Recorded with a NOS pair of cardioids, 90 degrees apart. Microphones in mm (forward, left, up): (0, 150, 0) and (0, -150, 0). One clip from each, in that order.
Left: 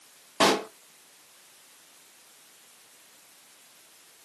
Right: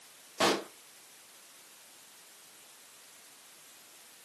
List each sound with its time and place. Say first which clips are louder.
0.4 s a pop: left 6 dB; 30° left, 0.7 m